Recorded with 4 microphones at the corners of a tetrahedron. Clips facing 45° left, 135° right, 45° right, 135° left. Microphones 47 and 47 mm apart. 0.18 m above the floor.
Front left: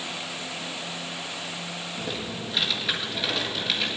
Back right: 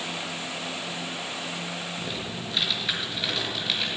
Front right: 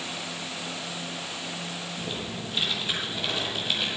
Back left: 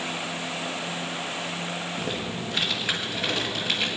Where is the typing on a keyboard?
130° left, 3.5 m.